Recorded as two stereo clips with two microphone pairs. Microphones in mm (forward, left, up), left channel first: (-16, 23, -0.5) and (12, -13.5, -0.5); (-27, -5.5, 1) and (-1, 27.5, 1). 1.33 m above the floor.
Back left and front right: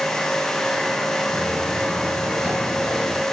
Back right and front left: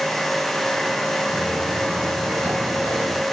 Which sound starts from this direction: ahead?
Footsteps, at 1.3 s.